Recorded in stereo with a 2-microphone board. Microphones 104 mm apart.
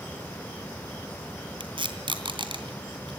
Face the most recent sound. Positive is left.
turn(degrees=-55)  # may be behind; listen again after turning